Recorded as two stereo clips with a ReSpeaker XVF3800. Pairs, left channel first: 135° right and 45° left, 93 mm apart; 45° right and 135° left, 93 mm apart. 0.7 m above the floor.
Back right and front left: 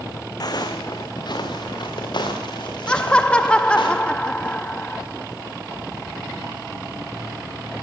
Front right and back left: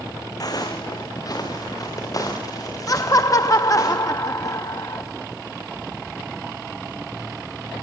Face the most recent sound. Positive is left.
turn(degrees=-65)